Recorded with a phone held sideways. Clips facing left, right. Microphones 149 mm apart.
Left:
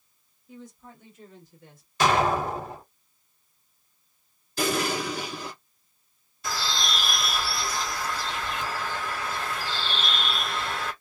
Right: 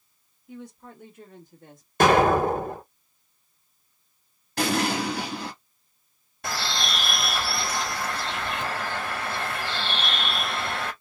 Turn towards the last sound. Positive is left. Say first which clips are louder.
# right 1 dB
turn(degrees=-75)  # may be behind; listen again after turning